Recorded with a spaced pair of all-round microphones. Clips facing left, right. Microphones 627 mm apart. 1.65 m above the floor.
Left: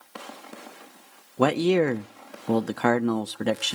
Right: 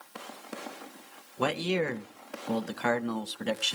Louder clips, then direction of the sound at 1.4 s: Left 9 dB; 70° left (ahead or behind).